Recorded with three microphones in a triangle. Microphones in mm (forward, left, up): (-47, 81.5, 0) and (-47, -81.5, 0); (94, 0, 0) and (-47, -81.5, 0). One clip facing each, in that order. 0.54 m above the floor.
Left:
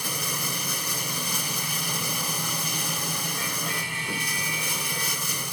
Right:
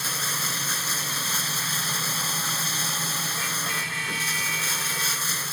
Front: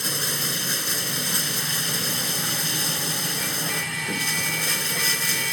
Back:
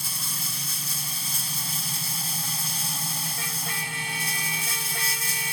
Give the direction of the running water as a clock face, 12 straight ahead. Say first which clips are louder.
Left 2 dB, front 9 dB; 12 o'clock.